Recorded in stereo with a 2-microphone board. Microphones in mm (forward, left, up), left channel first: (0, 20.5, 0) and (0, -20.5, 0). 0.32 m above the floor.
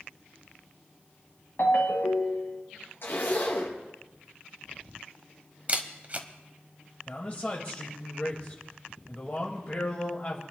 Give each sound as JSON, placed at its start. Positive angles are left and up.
{"t": 1.6, "sound": "a ringtone", "side_deg": 65, "distance_m": 1.7}
{"t": 3.0, "sound": "a zipper", "side_deg": 60, "distance_m": 4.0}
{"t": 5.7, "sound": "a camera shutter", "side_deg": -40, "distance_m": 1.0}
{"t": 7.1, "sound": "a man speaking", "side_deg": 40, "distance_m": 1.5}